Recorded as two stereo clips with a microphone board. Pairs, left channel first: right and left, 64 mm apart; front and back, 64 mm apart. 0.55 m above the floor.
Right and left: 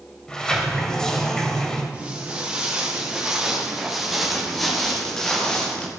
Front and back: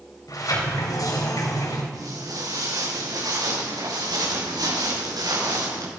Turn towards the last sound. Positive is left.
turn(degrees=-160)